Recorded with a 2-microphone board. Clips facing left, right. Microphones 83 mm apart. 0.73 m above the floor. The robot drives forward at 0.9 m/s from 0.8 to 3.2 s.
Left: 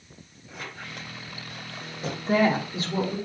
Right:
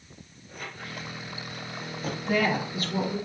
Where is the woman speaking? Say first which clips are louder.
Left 4 dB; 35° left (ahead or behind), 2 m; by 3.2 s 25° left (ahead or behind), 2.5 m.